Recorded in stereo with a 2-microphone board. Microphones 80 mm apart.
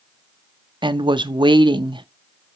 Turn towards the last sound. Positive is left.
turn(degrees=-75)  # may be behind; listen again after turning